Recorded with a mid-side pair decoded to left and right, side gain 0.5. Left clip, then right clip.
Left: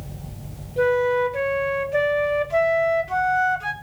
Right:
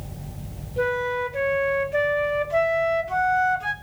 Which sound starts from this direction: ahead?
A flute, at 0.8 s.